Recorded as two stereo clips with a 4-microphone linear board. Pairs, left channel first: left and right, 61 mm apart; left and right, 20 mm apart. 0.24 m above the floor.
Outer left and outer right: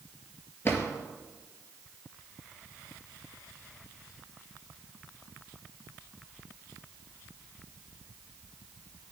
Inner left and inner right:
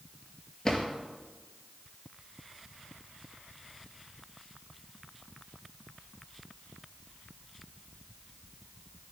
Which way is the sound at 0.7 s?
40° left (ahead or behind).